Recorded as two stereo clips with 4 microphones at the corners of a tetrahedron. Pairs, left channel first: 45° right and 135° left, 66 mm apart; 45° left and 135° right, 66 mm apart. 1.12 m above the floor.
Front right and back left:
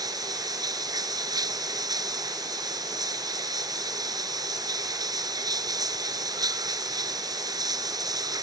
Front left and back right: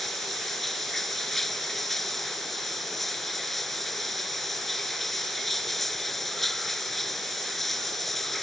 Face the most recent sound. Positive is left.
turn(degrees=130)